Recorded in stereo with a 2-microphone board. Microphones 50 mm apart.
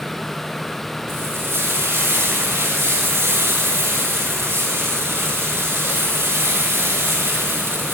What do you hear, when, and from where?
1.1 s frying: 65° right (ahead or behind), 7.5 m